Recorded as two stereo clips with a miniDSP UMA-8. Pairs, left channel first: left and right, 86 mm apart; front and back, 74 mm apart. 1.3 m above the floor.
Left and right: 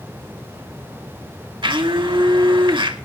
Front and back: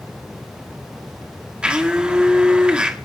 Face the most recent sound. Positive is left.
turn(degrees=-105)